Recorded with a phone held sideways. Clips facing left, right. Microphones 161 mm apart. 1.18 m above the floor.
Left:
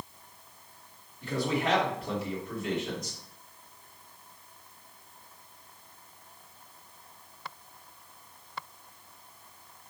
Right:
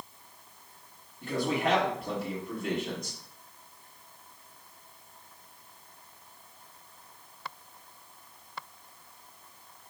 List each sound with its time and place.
1.2 s a man speaking: 55° right (ahead or behind), 1.9 m